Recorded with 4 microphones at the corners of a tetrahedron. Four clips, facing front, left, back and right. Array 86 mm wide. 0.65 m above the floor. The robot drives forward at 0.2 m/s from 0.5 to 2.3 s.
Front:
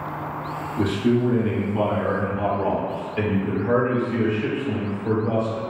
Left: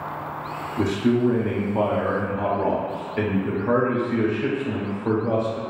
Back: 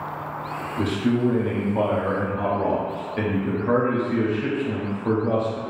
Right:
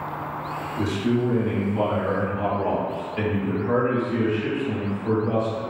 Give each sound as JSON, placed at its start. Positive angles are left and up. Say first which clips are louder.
{"t": 0.8, "sound": "a man speaking", "louder": "left 3 dB, front 2 dB", "azimuth_deg": 85, "distance_m": 0.8}